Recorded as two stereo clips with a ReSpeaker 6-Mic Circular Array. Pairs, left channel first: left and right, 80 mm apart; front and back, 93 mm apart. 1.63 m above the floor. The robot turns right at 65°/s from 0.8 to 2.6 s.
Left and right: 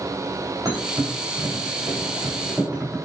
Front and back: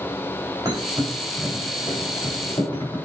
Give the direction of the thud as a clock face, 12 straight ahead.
4 o'clock.